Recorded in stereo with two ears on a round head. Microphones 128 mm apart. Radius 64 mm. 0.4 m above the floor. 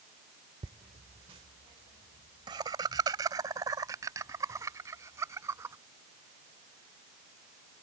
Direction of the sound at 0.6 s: 40° right (ahead or behind).